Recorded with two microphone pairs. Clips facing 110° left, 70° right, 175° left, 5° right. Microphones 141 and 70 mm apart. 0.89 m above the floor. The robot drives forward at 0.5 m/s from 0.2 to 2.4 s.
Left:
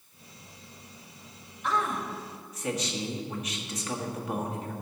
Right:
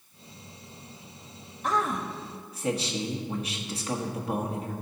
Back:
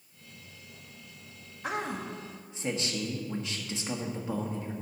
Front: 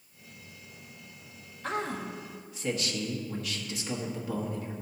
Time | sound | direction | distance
1.6 | a man speaking | 110° right | 1.2 m